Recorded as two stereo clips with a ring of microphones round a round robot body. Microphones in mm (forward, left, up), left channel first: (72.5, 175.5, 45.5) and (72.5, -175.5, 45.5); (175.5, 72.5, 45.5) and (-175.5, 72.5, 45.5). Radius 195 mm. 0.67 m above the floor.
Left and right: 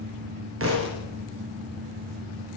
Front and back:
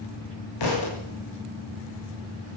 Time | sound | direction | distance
0.6 | a thud | 35° right | 6 m